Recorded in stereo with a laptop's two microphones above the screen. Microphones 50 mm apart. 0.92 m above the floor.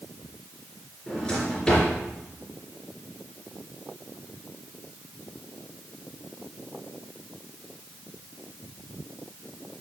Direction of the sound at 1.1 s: 15° left (ahead or behind).